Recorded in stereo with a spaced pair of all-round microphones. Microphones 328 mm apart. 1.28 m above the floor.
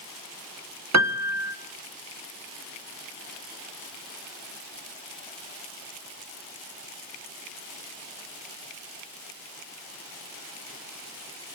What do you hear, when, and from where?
0.9 s a piano: 55° right (ahead or behind), 0.7 m